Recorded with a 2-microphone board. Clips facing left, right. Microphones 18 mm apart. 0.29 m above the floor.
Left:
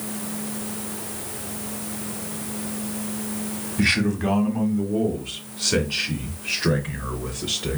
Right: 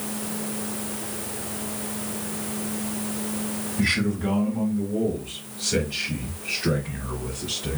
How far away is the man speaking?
About 1.3 m.